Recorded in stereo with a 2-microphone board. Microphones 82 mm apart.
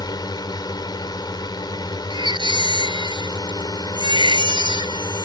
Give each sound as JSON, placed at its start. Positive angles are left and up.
{"t": 0.0, "sound": "a drone", "side_deg": 60}
{"t": 2.1, "sound": "a baby crying", "side_deg": -75}